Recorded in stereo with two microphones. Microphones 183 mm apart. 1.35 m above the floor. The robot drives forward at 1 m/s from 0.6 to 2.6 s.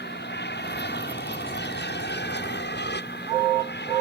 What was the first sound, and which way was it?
An aircraft, 70° left (ahead or behind).